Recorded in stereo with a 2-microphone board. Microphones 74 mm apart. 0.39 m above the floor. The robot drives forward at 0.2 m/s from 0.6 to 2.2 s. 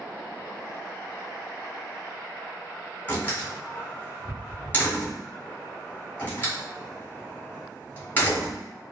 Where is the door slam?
25° left (ahead or behind), 1.6 m.